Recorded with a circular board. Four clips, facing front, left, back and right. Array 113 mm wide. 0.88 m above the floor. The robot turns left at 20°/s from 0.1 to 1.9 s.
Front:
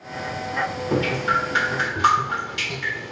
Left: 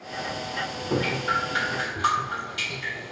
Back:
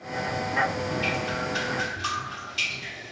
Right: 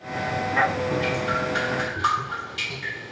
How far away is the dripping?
About 1.3 m.